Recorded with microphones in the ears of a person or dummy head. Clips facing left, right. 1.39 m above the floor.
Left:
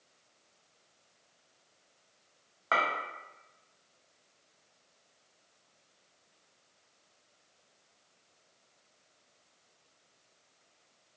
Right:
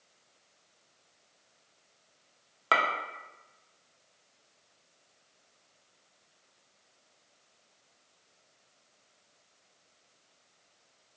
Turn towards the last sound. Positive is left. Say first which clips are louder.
# right 2 dB
turn(degrees=-50)  # may be behind; listen again after turning